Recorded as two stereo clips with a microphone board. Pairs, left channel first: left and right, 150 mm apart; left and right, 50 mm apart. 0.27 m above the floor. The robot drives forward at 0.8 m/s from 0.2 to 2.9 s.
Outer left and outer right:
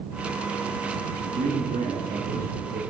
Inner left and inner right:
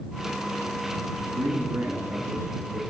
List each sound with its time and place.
1.2 s a man speaking: 65° right (ahead or behind), 4 m; by 2.8 s 75° right (ahead or behind), 3.5 m